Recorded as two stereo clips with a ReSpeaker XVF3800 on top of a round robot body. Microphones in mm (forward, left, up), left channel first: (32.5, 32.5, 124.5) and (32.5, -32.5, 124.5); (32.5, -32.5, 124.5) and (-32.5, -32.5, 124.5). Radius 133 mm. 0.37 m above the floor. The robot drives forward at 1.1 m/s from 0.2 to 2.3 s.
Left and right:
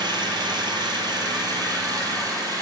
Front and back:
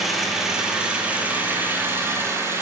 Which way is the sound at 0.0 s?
95° right.